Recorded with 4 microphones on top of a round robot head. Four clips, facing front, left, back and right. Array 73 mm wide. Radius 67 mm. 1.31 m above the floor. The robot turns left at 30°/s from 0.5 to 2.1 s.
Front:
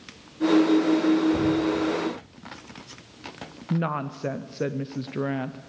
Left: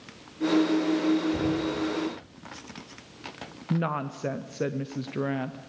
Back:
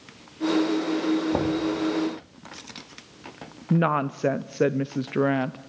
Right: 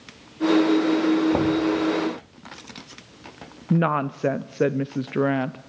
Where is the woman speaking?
130° right, 0.5 m.